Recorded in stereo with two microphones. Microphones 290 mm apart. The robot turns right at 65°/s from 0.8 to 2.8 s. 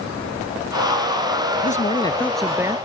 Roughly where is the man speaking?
Behind left.